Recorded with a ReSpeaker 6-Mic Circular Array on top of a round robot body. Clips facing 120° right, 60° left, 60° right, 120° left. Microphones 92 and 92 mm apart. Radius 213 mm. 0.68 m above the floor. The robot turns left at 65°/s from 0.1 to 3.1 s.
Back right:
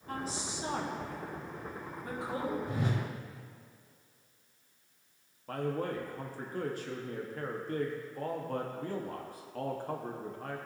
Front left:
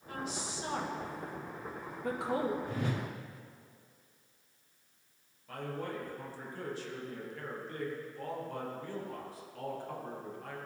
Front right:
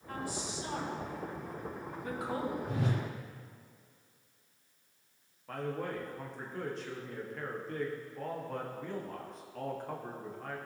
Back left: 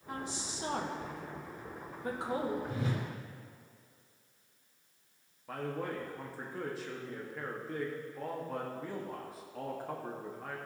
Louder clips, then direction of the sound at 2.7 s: Back right 1 dB, front right 2 dB; 50° right.